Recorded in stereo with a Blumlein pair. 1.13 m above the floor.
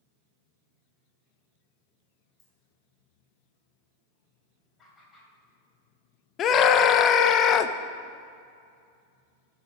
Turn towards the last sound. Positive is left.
turn(degrees=30)